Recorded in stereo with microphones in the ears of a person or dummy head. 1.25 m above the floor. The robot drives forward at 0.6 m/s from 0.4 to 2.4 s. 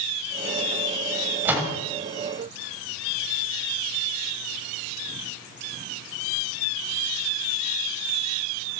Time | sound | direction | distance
1.4 | a door slam | 15° right (ahead or behind) | 6.5 m